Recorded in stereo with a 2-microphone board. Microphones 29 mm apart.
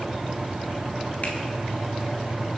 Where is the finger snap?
45° left (ahead or behind), 1.2 m.